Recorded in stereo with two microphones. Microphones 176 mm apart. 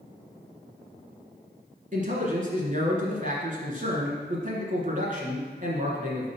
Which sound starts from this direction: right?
A man speaking, at 1.9 s.